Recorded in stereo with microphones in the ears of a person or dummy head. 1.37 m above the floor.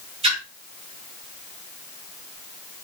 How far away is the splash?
About 4 m.